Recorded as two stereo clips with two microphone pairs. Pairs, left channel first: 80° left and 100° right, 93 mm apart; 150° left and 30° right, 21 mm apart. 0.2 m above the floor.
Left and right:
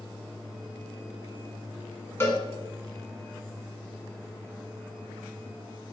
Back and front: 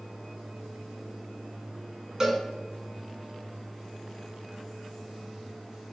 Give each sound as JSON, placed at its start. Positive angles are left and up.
{"t": 2.2, "sound": "a cowbell", "azimuth_deg": 25, "distance_m": 1.4}